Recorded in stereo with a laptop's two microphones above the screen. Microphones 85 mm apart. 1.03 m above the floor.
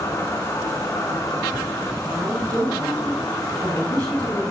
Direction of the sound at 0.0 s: 40° left (ahead or behind).